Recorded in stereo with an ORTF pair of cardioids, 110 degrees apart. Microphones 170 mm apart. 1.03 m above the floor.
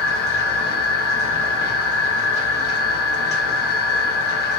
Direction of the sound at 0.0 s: 70° left.